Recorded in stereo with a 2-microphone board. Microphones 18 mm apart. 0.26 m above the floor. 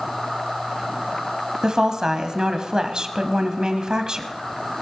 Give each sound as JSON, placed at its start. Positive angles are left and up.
{"t": 1.6, "sound": "a woman speaking", "side_deg": -45, "distance_m": 1.4}